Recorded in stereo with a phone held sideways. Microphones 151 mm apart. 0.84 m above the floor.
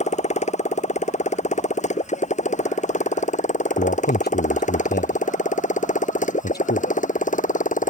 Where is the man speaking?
80° left.